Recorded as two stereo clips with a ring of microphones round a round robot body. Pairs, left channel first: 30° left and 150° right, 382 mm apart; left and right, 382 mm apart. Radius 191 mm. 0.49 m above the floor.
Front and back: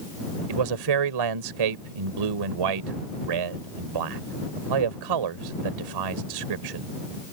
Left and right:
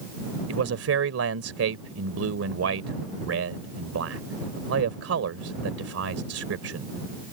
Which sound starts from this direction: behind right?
A man speaking, at 0.5 s.